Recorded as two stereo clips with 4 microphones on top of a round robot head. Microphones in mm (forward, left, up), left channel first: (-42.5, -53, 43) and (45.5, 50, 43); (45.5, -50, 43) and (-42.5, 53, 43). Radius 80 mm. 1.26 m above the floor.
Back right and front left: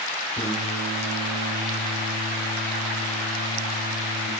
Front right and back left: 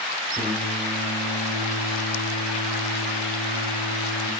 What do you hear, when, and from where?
0.3 s singing: 165° right, 3 m